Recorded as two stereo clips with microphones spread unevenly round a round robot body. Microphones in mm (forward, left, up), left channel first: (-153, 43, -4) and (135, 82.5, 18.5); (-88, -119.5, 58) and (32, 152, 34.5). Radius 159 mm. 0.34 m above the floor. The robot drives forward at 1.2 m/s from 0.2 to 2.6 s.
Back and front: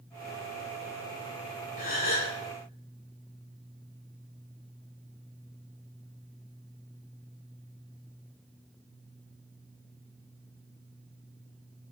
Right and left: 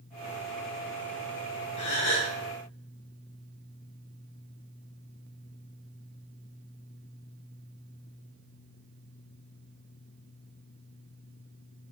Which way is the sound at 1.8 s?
140° right.